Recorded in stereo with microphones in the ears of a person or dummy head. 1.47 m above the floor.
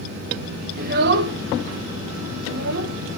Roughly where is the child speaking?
Right.